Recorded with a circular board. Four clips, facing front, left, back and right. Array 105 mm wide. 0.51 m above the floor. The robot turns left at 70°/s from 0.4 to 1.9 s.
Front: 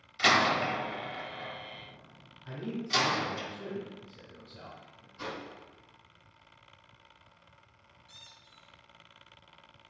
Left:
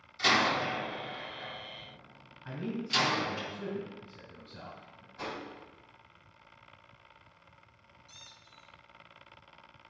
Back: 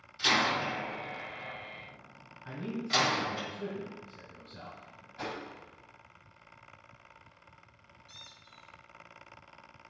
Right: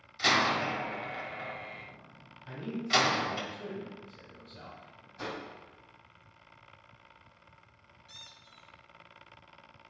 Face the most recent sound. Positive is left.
turn(degrees=-100)